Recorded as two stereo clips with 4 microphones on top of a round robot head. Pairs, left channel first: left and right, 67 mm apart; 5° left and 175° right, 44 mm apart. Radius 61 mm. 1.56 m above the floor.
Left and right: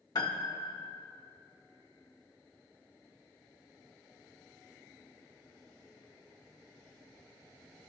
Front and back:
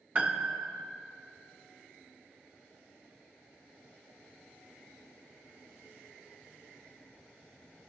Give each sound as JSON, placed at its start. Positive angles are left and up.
{"t": 0.1, "sound": "a piano", "azimuth_deg": 130, "distance_m": 1.4}